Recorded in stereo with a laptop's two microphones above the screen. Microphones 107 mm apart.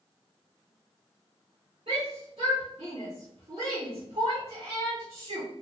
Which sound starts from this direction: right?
A shout, at 1.9 s.